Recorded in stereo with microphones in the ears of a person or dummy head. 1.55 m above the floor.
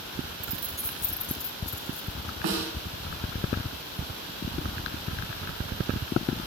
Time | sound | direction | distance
0.4 | keys jangling | 20° right (ahead or behind) | 1.0 m
2.4 | a snare drum | 70° right (ahead or behind) | 3.5 m